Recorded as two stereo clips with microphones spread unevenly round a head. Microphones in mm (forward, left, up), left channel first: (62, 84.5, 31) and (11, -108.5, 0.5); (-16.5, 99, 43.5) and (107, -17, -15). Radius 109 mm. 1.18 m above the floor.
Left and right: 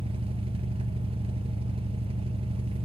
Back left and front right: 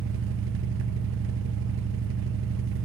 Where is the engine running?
40° right, 0.8 m.